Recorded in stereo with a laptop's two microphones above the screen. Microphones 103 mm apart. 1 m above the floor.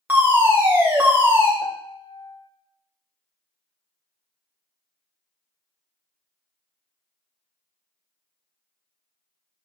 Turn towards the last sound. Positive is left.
turn(degrees=45)  # may be behind; listen again after turning